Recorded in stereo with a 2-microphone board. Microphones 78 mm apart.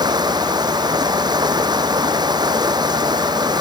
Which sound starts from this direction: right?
Running water, at 0.0 s.